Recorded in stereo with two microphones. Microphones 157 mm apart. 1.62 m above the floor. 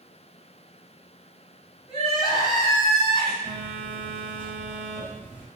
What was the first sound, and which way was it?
Crying, 50° left (ahead or behind).